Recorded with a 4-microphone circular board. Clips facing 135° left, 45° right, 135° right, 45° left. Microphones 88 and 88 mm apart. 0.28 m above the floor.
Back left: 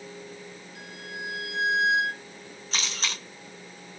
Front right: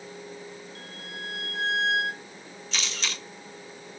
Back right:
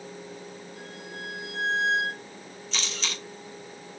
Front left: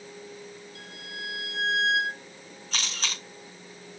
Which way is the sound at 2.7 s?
85° left.